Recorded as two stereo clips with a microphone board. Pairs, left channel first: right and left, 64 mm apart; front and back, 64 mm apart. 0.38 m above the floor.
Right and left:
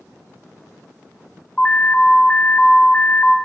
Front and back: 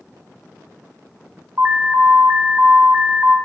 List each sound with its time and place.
1.6 s an alarm: 155° right, 1.2 m